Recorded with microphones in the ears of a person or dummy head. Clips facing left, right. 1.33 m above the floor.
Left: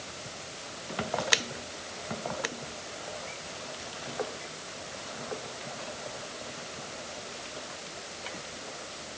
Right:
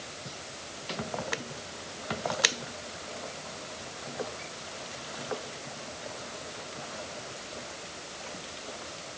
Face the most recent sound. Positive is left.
No sound to turn to.